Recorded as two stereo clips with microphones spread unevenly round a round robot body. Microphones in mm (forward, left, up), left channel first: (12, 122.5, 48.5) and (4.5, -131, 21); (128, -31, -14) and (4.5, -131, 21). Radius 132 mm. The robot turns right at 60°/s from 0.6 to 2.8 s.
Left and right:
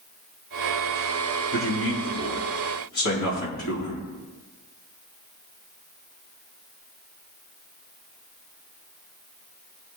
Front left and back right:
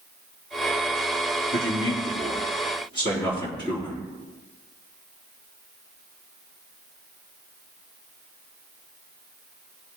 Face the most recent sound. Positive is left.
turn(degrees=110)